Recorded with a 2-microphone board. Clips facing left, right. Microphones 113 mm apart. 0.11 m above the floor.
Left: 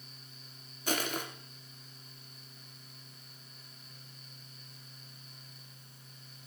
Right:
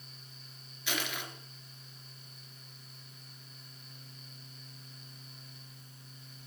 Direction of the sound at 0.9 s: 40° left (ahead or behind).